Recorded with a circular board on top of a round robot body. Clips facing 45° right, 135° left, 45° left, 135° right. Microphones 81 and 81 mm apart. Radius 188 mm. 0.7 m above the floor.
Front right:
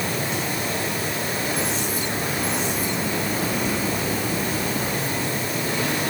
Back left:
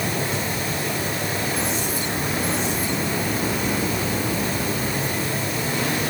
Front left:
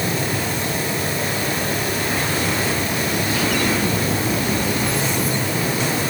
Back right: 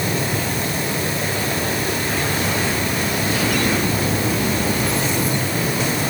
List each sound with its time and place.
Only background noise.